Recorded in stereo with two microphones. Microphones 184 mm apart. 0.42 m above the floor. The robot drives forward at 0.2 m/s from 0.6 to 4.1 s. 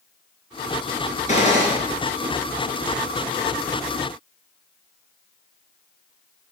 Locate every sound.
1.3 s a gunshot: 40° left (ahead or behind), 2.5 m